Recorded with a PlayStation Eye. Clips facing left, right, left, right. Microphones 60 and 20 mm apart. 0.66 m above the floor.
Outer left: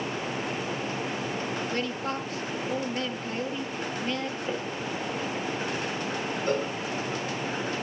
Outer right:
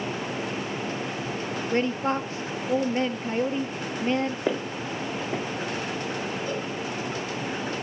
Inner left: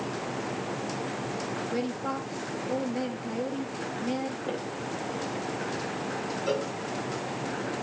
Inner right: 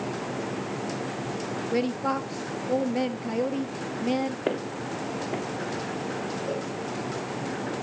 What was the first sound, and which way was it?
A woman speaking, 30° right (ahead or behind).